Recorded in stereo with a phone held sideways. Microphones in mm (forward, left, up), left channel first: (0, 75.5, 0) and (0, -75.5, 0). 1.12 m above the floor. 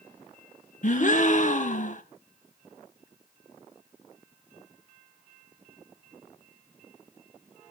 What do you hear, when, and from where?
0.8 s a gasp: 55° left (ahead or behind), 1.0 m